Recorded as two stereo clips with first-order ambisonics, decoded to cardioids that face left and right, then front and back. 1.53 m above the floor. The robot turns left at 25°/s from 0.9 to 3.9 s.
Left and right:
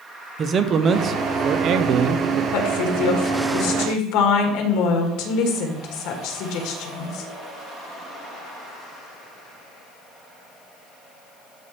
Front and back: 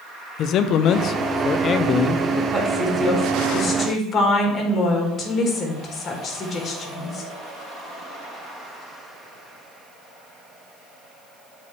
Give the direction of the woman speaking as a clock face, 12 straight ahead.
9 o'clock.